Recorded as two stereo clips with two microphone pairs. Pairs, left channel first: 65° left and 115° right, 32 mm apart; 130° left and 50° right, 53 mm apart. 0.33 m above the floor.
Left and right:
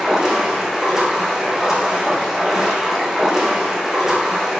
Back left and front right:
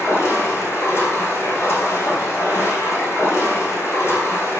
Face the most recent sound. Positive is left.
turn(degrees=165)